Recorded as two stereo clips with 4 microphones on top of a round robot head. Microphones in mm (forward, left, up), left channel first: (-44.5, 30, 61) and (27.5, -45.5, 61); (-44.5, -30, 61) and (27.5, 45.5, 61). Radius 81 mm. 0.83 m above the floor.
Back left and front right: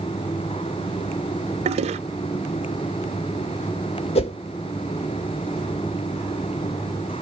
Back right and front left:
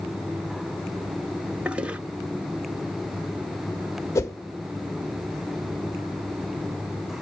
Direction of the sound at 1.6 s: 35° right.